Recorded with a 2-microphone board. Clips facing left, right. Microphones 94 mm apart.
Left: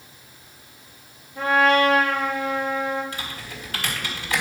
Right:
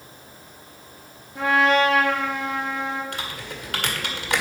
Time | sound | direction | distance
1.4 | a trumpet | 80° right | 3.5 m
3.1 | typing on a keyboard | 70° right (ahead or behind) | 1.7 m